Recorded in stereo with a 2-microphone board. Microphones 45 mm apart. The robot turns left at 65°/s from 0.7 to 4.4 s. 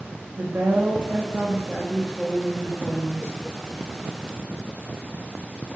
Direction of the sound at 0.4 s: 95° right.